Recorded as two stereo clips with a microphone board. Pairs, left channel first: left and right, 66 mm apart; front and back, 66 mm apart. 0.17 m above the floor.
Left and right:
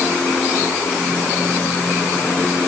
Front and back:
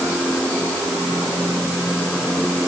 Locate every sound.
Only background noise.